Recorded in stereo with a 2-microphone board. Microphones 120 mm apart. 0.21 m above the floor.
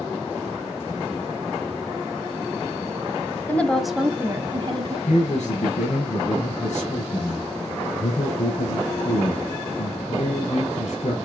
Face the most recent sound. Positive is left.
turn(degrees=75)  # may be behind; listen again after turning